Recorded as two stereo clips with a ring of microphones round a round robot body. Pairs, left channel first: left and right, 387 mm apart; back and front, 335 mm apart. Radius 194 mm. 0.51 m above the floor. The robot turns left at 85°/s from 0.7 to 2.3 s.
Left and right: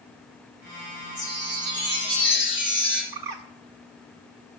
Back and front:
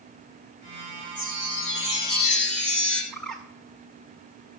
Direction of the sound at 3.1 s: 90° right.